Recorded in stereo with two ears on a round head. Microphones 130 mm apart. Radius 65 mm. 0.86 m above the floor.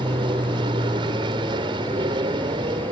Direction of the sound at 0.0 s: 35° right (ahead or behind).